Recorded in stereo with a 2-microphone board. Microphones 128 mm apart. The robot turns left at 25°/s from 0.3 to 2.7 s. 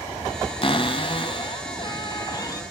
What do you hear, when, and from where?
0.6 s a cupboard door: 90° left, 1.6 m; by 2.6 s 40° left, 1.6 m